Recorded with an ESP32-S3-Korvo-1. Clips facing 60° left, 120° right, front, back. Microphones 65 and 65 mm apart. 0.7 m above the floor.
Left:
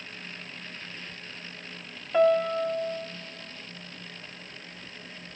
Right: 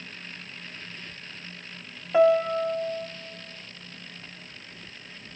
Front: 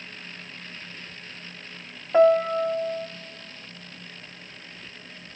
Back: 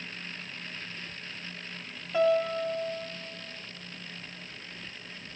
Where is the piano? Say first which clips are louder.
Right 2 dB, front 7 dB; 40° right, 0.7 m.